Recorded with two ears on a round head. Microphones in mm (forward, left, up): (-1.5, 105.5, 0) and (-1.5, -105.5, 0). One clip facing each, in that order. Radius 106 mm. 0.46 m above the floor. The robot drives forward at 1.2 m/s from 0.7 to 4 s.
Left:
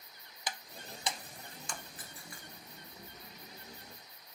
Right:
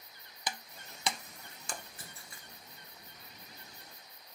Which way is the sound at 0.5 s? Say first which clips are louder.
Right 1 dB; 80° right.